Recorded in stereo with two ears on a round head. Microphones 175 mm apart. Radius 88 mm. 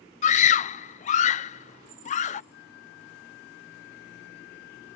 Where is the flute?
55° left (ahead or behind).